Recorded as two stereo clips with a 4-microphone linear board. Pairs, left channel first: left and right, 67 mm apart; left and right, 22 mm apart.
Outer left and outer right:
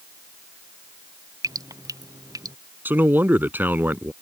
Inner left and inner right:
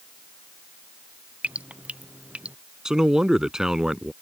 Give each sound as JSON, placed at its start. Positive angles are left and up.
{"t": 1.4, "sound": "dripping", "side_deg": -70}
{"t": 2.9, "sound": "a man speaking", "side_deg": -30}